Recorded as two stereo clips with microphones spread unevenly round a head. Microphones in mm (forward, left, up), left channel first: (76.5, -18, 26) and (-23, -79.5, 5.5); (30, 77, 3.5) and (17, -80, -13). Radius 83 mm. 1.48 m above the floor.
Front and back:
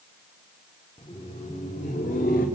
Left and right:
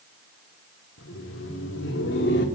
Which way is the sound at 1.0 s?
95° left.